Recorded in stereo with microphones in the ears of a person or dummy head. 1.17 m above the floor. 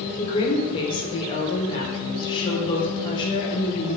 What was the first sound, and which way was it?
A woman speaking, 25° left (ahead or behind).